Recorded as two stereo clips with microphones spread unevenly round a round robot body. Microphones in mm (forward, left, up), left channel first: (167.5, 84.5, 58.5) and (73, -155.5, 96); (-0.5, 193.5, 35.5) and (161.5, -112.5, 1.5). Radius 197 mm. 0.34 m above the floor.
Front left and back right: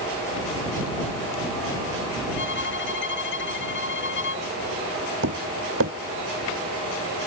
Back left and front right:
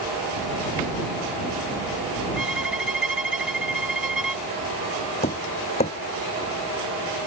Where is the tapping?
165° right.